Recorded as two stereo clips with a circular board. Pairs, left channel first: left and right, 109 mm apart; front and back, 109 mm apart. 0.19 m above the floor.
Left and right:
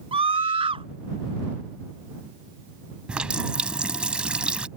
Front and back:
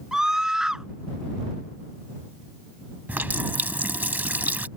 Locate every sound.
0.1 s a scream: 95° right
3.1 s a running tap: 150° right